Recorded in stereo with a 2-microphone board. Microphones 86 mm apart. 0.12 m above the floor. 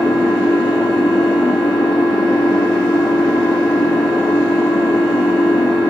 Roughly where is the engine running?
Left.